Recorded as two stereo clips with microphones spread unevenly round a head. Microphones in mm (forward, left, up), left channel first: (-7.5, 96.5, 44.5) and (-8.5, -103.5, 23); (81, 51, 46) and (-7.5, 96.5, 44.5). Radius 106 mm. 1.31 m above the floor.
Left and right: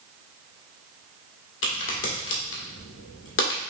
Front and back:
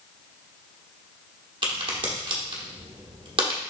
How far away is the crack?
About 1.4 m.